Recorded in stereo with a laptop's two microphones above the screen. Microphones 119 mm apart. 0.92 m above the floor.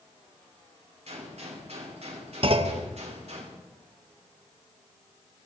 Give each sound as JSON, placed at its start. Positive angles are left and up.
{"t": 1.1, "sound": "a gunshot", "side_deg": -60, "distance_m": 3.0}
{"t": 2.4, "sound": "a clunk", "side_deg": -50, "distance_m": 0.9}